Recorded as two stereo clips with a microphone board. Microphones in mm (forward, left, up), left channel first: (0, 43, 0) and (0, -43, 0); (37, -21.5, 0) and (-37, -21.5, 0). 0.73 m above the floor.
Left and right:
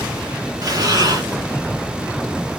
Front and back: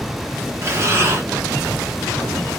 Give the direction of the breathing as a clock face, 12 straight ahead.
4 o'clock.